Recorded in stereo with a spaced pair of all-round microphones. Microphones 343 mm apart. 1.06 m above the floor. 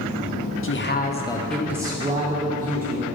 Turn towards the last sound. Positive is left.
turn(degrees=-25)  # may be behind; listen again after turning